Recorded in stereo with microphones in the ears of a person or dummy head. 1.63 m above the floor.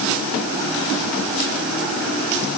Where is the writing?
No writing in this recording.